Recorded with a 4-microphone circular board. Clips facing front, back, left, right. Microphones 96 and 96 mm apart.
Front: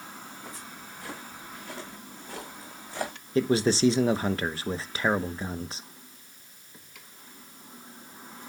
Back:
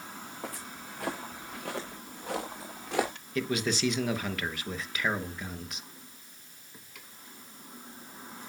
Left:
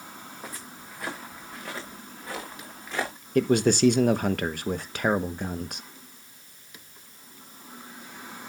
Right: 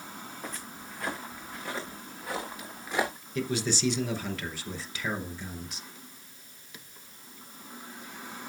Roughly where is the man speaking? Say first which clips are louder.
Front 7 dB, left 10 dB; ahead left.